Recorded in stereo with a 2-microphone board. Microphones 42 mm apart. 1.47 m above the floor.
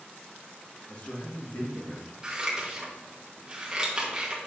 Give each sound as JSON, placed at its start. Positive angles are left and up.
{"t": 0.9, "sound": "a man speaking", "side_deg": 35, "distance_m": 1.7}
{"t": 2.2, "sound": "scissors", "side_deg": -20, "distance_m": 1.3}